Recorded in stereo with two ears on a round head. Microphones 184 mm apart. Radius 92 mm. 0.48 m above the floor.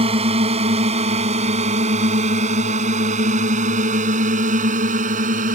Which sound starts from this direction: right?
A drone, at 0.0 s.